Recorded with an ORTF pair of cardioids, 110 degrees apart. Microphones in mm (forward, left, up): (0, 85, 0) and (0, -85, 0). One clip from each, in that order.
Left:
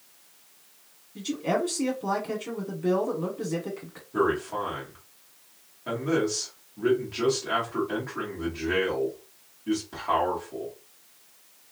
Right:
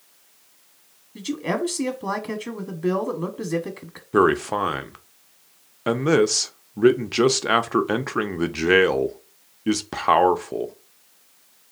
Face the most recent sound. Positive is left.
turn(degrees=-70)